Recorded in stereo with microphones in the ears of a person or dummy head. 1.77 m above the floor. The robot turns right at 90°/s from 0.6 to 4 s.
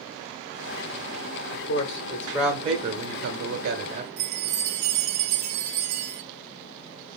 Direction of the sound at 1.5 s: 105° left.